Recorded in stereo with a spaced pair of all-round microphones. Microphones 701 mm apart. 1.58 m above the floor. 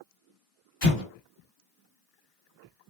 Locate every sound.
0.8 s an explosion: 50° left (ahead or behind), 2 m